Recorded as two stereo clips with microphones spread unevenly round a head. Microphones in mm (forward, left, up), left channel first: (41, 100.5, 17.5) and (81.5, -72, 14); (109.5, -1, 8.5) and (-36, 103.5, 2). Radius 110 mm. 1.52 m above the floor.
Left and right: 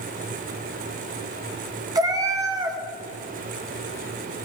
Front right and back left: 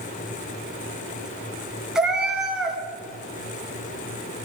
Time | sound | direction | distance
1.9 | a cat meowing | 130° right | 1.5 m